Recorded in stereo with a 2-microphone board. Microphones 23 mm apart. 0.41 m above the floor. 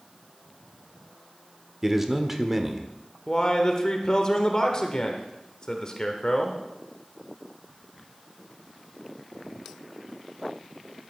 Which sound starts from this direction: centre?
A man speaking, at 1.8 s.